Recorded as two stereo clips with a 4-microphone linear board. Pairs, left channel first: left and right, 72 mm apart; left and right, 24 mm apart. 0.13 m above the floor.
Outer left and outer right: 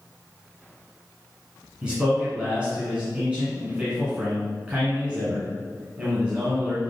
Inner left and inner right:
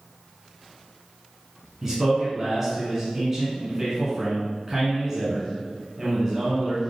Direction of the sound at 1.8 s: 15° right (ahead or behind).